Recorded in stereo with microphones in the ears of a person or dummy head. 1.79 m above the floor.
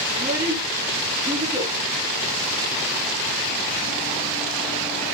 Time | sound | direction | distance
0.1 | a child speaking | 15° right (ahead or behind) | 3 m